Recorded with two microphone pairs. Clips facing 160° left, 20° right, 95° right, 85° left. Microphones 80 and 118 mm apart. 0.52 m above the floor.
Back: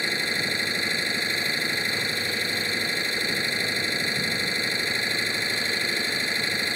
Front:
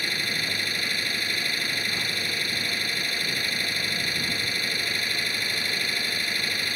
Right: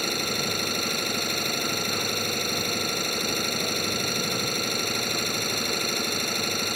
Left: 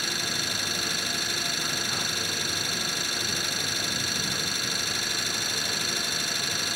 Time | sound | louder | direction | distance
0.0 | an engine running | back 2 dB, right 5 dB | 130° right | ?